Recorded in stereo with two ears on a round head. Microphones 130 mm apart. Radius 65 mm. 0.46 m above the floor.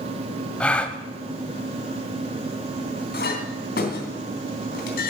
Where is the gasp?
10° left (ahead or behind), 1.0 m.